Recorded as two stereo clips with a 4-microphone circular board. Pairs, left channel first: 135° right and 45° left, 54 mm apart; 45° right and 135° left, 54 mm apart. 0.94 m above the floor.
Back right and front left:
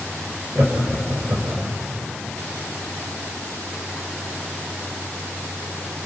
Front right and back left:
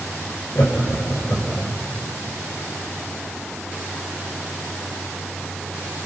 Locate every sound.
0.6 s laughter: 10° right, 4.5 m; by 1.7 s 10° left, 5 m